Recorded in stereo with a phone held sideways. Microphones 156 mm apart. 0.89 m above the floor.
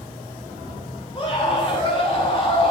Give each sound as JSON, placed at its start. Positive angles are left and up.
{"t": 0.0, "sound": "an insect", "side_deg": 40, "distance_m": 6.0}
{"t": 1.1, "sound": "a scream", "side_deg": 35, "distance_m": 3.0}